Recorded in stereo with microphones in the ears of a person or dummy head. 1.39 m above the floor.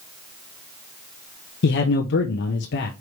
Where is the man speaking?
55° left (ahead or behind), 0.9 m.